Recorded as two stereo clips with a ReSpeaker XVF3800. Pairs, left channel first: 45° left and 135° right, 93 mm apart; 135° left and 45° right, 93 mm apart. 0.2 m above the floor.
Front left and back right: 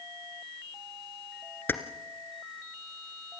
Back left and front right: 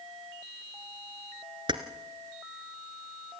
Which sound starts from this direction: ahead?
Keys jangling, at 1.7 s.